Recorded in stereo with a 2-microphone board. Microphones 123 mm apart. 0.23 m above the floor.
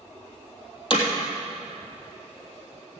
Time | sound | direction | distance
0.9 | hammering | 45° left (ahead or behind) | 3 m